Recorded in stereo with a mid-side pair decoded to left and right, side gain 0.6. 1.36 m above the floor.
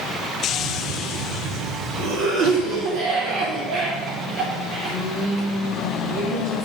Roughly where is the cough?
Right.